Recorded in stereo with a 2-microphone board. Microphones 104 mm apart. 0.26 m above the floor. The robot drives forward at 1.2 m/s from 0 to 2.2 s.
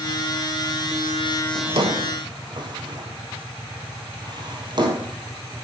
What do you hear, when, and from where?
1.6 s a drawer: 70° right (ahead or behind), 1.2 m; by 5.1 s 45° right (ahead or behind), 1.6 m